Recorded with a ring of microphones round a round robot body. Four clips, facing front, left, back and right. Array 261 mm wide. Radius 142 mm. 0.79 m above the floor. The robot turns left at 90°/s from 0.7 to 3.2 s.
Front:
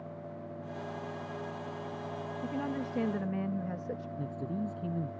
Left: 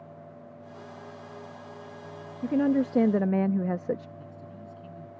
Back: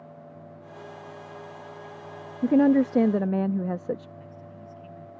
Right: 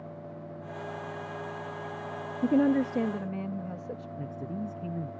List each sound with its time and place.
2.4 s a woman speaking: 155° right; by 4.1 s 135° left
4.2 s a man speaking: 40° right